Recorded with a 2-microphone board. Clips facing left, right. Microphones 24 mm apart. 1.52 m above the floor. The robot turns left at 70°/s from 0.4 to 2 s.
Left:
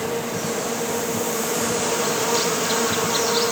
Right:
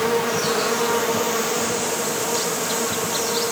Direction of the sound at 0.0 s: 80° right.